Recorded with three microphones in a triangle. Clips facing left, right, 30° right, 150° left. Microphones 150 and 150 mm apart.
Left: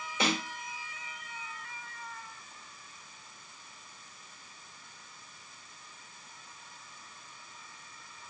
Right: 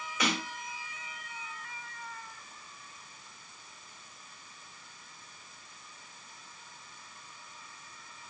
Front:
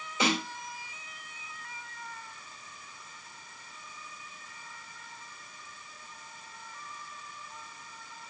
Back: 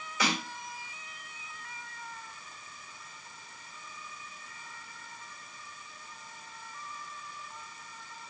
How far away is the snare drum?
About 1.4 m.